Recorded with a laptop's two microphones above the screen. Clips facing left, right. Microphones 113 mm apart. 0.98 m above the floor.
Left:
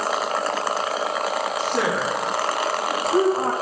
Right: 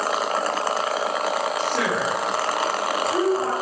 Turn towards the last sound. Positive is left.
turn(degrees=50)  # may be behind; listen again after turning